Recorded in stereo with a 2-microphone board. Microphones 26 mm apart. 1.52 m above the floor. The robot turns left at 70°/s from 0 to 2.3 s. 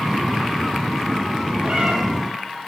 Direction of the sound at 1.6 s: 35° right (ahead or behind).